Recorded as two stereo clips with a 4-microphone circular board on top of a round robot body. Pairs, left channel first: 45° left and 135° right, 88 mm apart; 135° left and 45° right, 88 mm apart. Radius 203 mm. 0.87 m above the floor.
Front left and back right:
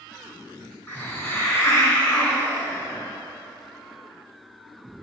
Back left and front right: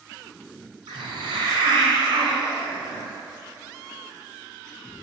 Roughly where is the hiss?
Ahead.